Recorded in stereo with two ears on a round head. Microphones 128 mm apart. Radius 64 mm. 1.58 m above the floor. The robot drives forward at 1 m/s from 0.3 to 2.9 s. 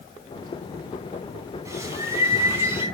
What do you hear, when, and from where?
1.6 s a bird: 20° right (ahead or behind), 5 m